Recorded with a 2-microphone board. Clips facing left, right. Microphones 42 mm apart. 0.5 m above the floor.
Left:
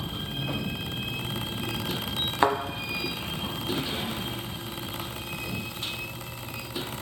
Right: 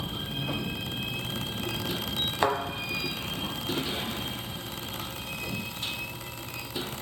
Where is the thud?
20° left (ahead or behind), 0.5 m.